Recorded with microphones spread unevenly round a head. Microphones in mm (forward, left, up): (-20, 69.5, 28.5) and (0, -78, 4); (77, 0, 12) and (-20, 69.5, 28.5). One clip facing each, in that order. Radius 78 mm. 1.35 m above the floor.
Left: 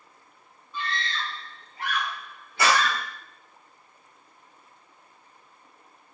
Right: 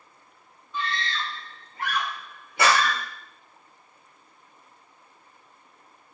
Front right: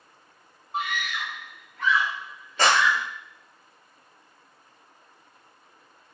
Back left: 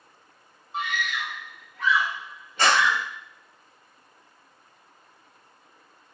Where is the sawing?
No sawing in this recording.